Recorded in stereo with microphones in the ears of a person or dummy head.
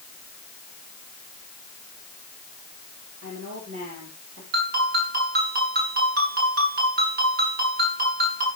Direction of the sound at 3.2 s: 65° right (ahead or behind).